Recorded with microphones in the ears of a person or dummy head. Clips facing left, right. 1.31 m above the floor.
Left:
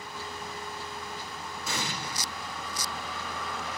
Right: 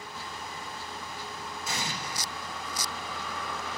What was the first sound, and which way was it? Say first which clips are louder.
An explosion: left 1 dB; 80° left.